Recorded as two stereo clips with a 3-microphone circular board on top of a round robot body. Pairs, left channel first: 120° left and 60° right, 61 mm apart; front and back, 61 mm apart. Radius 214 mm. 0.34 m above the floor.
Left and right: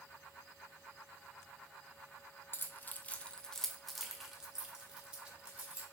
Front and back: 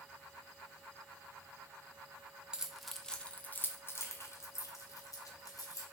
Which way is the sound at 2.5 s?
110° left.